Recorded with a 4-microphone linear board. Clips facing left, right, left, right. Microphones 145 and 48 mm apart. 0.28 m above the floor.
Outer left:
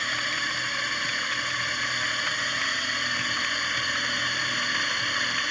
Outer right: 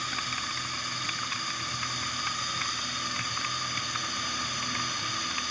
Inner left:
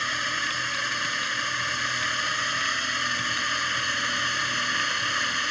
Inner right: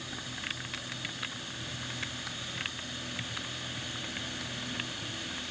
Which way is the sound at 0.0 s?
70° left (ahead or behind).